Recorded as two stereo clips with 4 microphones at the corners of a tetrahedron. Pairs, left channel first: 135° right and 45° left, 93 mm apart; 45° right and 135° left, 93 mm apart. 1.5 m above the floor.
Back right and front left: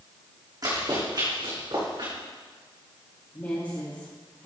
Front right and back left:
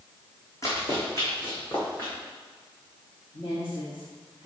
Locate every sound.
0.6 s running footsteps: 10° left, 3.5 m; by 2.1 s 20° left, 5 m
3.3 s a woman speaking: 75° right, 3 m